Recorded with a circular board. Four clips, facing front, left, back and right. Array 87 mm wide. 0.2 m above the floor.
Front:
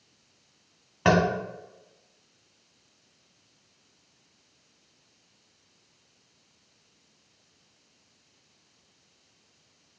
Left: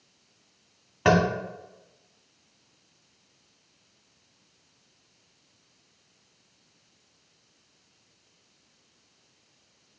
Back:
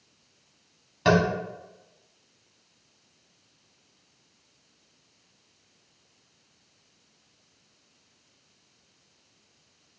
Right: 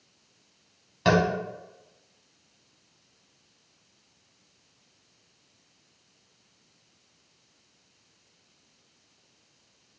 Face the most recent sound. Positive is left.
turn(degrees=45)